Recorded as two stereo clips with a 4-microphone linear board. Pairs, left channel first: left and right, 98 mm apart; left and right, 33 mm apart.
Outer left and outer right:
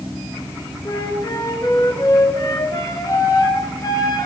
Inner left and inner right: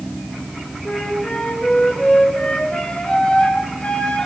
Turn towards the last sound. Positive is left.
turn(degrees=45)  # may be behind; listen again after turning